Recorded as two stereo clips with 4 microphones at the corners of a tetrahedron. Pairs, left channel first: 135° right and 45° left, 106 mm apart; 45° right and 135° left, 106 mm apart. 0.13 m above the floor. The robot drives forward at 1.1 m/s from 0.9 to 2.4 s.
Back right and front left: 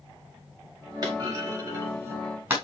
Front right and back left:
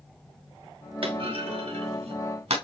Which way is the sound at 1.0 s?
100° left.